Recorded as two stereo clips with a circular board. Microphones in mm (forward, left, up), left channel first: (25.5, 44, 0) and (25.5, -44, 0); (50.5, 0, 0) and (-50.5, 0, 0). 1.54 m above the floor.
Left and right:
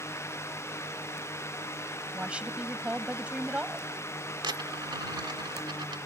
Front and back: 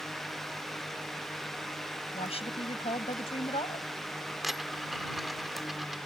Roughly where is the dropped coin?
Right.